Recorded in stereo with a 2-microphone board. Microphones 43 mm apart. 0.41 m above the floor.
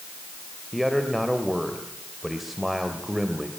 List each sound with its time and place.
0.7 s a man speaking: 5° right (ahead or behind), 2 m